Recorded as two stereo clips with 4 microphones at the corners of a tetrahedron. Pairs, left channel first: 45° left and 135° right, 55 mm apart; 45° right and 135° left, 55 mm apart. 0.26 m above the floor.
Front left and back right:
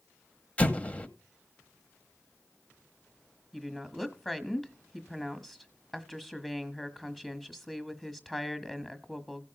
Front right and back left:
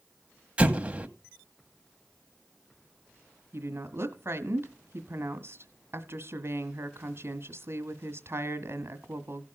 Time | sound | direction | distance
0.6 | an explosion | 90° left | 1.0 m
3.5 | a woman speaking | 130° left | 1.5 m